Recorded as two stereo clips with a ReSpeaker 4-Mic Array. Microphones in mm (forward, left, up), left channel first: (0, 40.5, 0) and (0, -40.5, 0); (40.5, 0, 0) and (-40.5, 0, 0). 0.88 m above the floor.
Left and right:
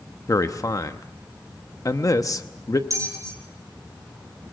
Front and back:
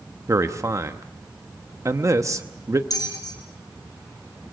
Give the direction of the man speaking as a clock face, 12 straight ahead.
8 o'clock.